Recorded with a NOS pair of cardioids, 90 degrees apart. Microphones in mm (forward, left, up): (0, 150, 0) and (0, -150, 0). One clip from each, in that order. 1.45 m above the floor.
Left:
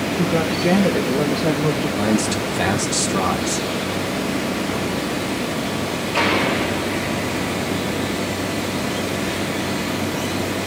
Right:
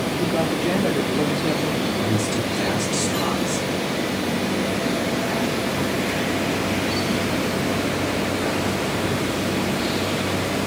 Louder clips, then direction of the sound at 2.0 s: Left 2 dB; 65° left.